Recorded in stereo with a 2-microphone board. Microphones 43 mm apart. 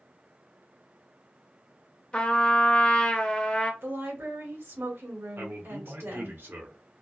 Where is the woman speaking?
80° right, 1.5 m.